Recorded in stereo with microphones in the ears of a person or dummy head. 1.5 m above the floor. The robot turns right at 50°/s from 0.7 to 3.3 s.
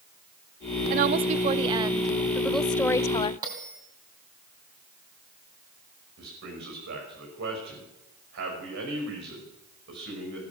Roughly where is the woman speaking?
Right.